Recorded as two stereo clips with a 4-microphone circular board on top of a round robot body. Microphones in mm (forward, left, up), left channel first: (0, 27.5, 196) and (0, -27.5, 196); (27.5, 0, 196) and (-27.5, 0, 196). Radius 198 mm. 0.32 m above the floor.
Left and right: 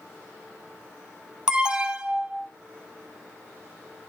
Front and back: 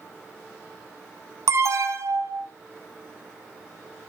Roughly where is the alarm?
Behind.